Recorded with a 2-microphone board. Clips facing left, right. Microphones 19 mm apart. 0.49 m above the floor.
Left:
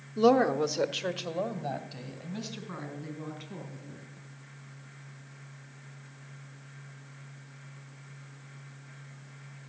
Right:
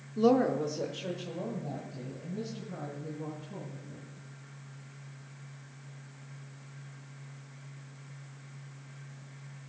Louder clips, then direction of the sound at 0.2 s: Left 3 dB; 15° left (ahead or behind).